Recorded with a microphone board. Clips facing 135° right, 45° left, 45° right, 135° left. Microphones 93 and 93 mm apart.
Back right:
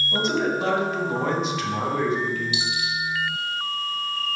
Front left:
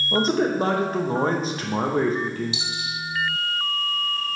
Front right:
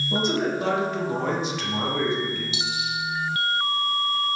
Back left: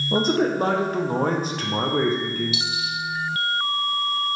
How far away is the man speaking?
About 0.7 m.